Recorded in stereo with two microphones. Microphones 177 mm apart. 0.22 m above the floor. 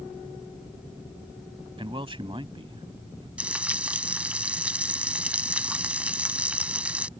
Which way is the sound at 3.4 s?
5° right (ahead or behind).